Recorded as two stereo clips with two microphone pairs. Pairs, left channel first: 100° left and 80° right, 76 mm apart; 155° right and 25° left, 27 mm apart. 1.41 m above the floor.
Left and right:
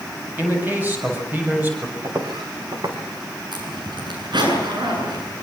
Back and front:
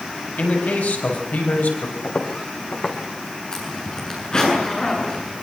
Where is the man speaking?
145° right, 7.5 m.